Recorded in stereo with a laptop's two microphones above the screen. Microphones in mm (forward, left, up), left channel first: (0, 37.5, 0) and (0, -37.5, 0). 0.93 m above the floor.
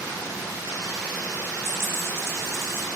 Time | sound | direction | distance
1.6 | a dropped coin | 35° left (ahead or behind) | 0.9 m